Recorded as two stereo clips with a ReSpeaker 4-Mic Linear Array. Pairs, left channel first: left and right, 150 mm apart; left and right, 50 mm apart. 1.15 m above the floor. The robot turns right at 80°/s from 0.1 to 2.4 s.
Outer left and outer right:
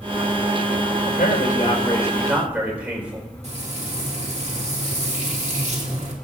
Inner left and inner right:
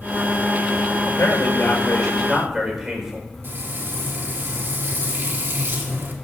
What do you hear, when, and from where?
1.1 s a man speaking: 80° left, 4.5 m; by 3.3 s 170° right, 4.5 m
3.4 s frying: 50° right (ahead or behind), 2 m